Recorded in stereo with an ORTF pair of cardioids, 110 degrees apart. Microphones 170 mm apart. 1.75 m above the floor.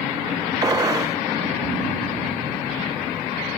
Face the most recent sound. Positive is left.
turn(degrees=-20)